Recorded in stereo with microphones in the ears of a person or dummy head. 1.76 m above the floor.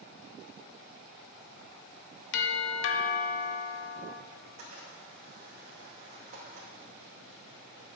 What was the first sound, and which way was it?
A doorbell, 60° left (ahead or behind).